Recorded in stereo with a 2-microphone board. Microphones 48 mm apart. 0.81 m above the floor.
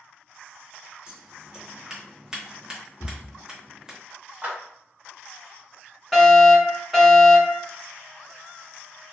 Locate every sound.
1.1 s scissors: 15° right (ahead or behind), 0.8 m
3.0 s a cupboard door: 50° left (ahead or behind), 0.5 m
4.4 s a clap: 40° right (ahead or behind), 1.4 m
6.1 s a fire alarm: 5° left (ahead or behind), 1.5 m